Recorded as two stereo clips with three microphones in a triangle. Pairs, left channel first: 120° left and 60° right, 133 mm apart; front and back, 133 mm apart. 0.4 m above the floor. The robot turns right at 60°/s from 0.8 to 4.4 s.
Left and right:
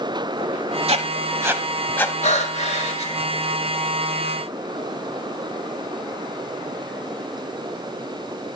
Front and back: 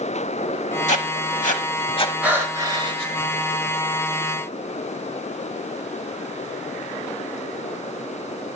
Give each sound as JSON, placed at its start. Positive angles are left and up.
{"t": 0.9, "sound": "writing", "azimuth_deg": -25, "distance_m": 0.9}
{"t": 2.2, "sound": "breathing", "azimuth_deg": 105, "distance_m": 1.3}